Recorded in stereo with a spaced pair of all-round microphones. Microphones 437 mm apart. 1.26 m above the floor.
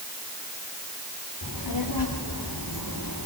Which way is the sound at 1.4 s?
65° left (ahead or behind).